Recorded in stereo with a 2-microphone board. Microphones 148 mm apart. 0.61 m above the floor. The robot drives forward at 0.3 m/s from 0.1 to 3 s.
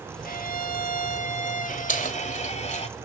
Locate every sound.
0.2 s a violin: 75° left (ahead or behind), 0.8 m; by 2.9 s 45° left (ahead or behind), 1.1 m
1.9 s keys jangling: 60° left (ahead or behind), 2 m; by 2.9 s 55° left (ahead or behind), 2 m